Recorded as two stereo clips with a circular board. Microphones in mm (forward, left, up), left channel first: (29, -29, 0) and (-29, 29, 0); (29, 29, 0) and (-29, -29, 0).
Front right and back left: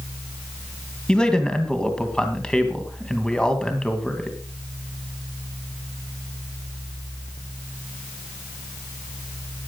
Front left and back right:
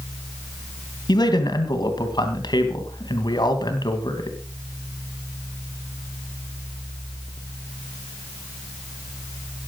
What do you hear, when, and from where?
1.1 s a man speaking: 35° left, 2.5 m